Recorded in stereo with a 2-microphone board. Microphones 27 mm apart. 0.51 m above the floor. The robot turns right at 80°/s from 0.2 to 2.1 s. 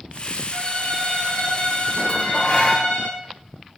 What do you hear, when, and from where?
0.5 s a violin: 10° left, 4 m; by 3.1 s 135° left, 4 m
2.1 s dishes clattering: 40° left (ahead or behind), 1.3 m; by 2.9 s 45° left (ahead or behind), 1.3 m